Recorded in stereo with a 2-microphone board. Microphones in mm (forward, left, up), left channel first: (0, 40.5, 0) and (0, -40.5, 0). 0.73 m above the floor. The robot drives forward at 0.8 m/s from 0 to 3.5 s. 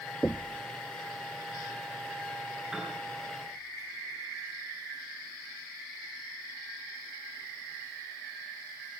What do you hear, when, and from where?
0.2 s knocking: 20° left (ahead or behind), 0.5 m; by 0.6 s 15° left (ahead or behind), 0.8 m
2.7 s a piano: 5° right (ahead or behind), 7.5 m